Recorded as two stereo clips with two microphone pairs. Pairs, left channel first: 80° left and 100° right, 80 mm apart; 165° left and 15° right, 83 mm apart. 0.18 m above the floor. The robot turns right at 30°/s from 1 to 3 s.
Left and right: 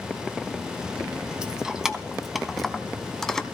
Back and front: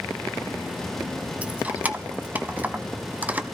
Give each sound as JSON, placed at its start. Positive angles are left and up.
{"t": 1.4, "sound": "keys jangling", "azimuth_deg": -50, "distance_m": 0.7}